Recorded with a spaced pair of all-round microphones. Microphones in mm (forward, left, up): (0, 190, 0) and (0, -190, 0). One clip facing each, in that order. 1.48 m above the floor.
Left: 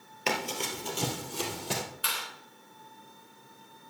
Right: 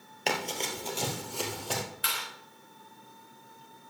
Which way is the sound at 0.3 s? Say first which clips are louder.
Even; 15° left (ahead or behind).